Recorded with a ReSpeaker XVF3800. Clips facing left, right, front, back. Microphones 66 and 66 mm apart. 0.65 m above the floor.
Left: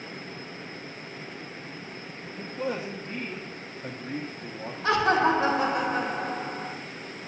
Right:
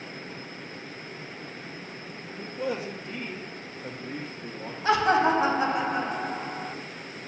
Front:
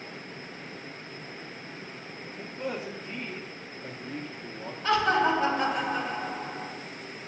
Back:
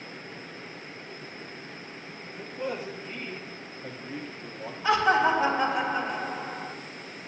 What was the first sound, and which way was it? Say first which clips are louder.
A man speaking: even, back 1 dB; 90° left.